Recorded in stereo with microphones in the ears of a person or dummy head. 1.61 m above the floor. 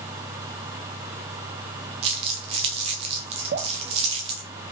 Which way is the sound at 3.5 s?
55° right (ahead or behind).